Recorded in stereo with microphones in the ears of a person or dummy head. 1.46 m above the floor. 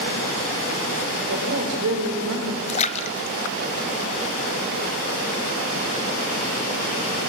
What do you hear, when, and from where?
1.3 s a woman speaking: 85° right, 4.5 m
2.7 s a splash: 35° left (ahead or behind), 0.9 m